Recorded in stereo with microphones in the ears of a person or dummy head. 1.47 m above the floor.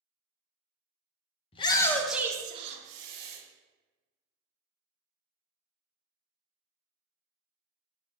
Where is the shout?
35° left (ahead or behind), 0.7 m; by 3.4 s 55° right (ahead or behind), 1.0 m.